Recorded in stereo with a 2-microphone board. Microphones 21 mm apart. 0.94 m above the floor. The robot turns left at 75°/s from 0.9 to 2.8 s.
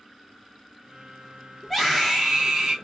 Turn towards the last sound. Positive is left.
turn(degrees=-70)